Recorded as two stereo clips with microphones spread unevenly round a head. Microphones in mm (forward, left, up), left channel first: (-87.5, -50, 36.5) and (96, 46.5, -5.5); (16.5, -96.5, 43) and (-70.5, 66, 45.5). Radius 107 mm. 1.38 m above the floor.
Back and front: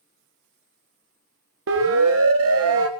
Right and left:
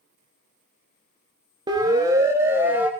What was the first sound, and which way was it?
A siren, 50° left.